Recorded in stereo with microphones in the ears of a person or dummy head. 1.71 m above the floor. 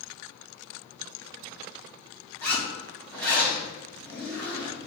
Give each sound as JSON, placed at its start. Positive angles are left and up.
{"t": 2.4, "sound": "a zipper", "side_deg": 15, "distance_m": 2.0}